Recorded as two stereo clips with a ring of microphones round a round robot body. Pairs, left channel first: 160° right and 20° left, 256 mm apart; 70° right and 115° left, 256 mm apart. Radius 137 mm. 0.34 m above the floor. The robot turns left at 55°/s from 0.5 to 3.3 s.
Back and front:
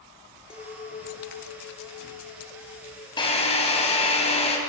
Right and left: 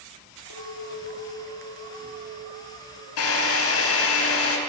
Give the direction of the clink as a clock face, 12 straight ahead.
3 o'clock.